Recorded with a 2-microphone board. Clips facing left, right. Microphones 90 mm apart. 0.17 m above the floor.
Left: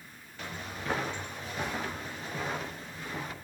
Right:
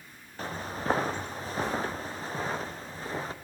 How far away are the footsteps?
About 2.0 m.